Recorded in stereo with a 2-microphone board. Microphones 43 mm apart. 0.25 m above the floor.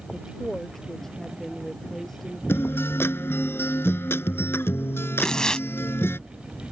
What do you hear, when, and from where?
0.1 s a woman speaking: 5° left (ahead or behind)
2.5 s a guitar: 65° left (ahead or behind)
5.2 s tearing paper: 15° left (ahead or behind)